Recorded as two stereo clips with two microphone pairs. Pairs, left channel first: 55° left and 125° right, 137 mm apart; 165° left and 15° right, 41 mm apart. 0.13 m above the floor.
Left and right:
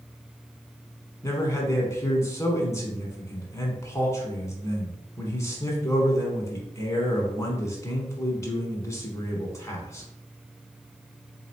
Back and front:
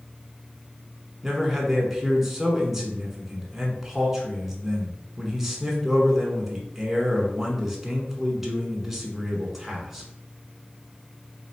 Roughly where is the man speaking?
Ahead left.